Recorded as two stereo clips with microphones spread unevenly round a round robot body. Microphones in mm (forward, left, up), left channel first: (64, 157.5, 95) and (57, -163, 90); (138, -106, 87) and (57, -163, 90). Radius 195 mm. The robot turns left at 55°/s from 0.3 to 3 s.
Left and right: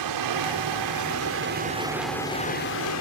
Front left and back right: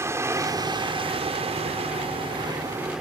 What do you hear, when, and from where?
0.0 s running water: 85° right; by 3.0 s 125° left